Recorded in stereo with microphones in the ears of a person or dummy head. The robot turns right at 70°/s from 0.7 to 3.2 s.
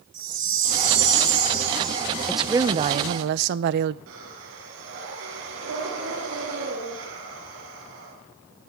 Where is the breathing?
75° right (ahead or behind), 4 m.